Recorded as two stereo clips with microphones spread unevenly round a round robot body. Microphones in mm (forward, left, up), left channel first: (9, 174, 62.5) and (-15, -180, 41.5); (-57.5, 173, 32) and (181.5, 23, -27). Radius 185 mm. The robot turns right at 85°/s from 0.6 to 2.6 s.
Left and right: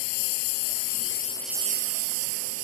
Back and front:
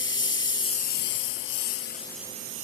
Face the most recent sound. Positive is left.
turn(degrees=-90)